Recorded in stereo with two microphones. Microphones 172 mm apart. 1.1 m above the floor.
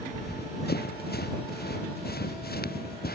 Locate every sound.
0.1 s running footsteps: 75° left (ahead or behind); by 3.2 s 70° left (ahead or behind)